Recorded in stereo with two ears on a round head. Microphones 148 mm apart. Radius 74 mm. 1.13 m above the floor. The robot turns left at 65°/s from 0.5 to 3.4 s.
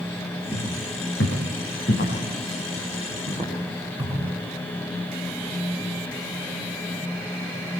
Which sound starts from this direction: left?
Footsteps, at 0.5 s.